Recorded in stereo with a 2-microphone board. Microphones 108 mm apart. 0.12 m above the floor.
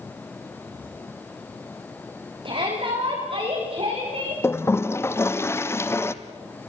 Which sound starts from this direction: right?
A shout, at 2.5 s.